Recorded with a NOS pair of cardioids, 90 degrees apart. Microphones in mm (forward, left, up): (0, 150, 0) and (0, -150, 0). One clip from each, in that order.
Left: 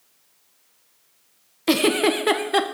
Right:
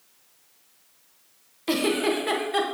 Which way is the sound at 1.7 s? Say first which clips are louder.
Left 5 dB; 40° left.